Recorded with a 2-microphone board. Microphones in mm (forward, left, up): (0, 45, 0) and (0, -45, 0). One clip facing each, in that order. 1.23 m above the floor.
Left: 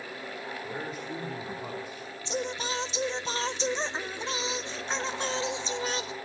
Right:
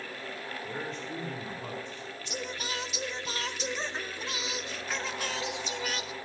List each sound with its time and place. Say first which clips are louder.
0.6 s a man speaking: even; 5° left (ahead or behind), 4 m
2.2 s singing: left 6 dB; 25° left (ahead or behind), 1.1 m